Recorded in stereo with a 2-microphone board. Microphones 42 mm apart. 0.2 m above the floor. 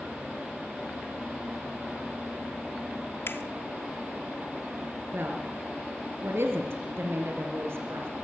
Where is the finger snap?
60° left (ahead or behind), 1.7 m.